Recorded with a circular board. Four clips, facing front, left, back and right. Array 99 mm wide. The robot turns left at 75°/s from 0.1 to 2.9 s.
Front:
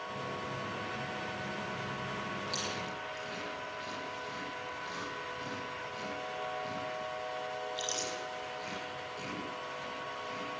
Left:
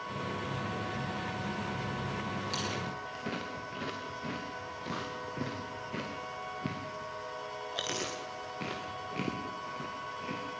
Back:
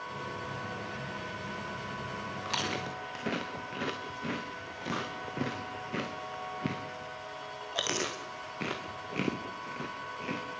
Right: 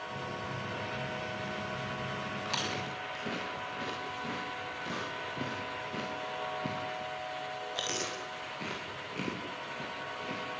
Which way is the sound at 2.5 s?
150° right.